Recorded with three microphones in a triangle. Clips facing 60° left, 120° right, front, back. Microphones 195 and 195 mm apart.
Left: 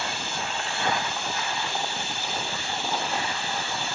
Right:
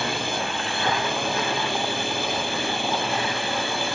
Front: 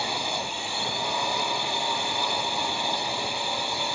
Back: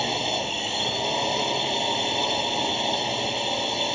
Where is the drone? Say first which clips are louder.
Right 6 dB, back 4 dB; 115° right.